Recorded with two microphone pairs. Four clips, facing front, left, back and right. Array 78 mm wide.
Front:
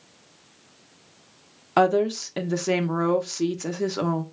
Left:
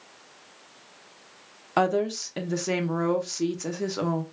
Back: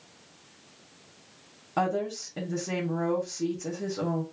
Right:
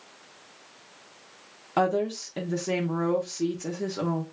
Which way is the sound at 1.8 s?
35° left.